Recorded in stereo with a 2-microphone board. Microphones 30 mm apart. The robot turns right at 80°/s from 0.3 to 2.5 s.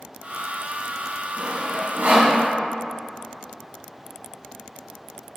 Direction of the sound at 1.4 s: 25° right (ahead or behind).